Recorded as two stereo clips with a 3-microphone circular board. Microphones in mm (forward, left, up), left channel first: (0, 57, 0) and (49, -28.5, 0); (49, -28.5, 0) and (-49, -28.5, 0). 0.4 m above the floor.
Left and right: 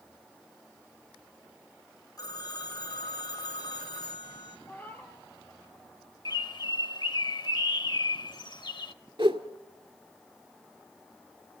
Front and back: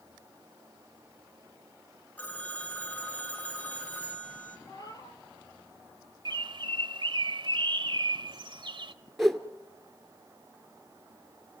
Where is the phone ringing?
75° left, 3.5 m.